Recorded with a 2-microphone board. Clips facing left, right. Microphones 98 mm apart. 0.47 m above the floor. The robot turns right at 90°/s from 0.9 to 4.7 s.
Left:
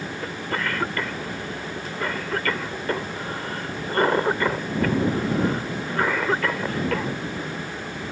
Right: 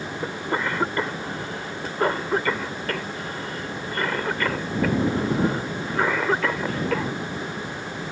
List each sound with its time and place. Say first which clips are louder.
0.2 s a cough: right 3 dB; 20° right (ahead or behind); by 8.1 s 5° right (ahead or behind)